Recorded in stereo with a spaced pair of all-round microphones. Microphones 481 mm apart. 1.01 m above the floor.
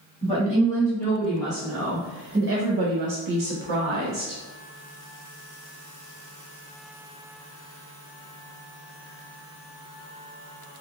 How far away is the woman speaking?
About 1.7 m.